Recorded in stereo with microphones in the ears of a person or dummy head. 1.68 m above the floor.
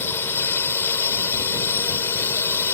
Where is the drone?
20° left (ahead or behind).